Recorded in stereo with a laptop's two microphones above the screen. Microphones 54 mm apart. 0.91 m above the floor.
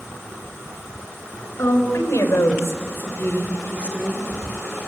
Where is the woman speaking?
65° left (ahead or behind), 4.5 m; by 4.2 s 10° left (ahead or behind), 2.5 m.